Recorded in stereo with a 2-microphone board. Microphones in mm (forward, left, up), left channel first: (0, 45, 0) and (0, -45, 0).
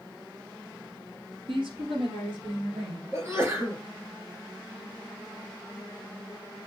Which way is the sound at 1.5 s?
75° right (ahead or behind).